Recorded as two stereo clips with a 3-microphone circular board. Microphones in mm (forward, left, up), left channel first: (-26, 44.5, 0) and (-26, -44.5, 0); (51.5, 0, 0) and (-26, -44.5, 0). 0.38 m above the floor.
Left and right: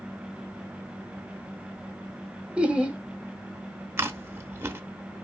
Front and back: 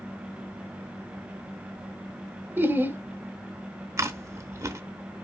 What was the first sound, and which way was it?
Laughter, 145° right.